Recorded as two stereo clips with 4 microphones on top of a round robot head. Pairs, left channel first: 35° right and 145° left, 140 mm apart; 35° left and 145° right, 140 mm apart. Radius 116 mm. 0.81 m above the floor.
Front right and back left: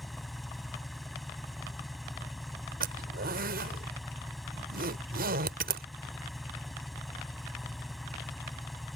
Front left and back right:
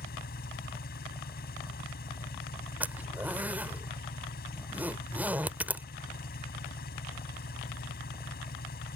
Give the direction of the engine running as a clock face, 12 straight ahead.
10 o'clock.